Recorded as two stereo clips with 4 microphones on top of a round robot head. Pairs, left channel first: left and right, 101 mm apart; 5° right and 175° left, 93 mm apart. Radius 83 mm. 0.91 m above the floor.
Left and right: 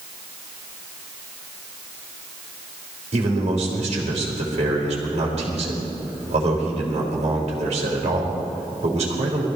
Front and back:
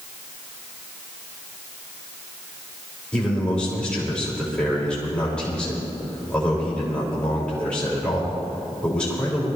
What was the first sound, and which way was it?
A man speaking, 85° right.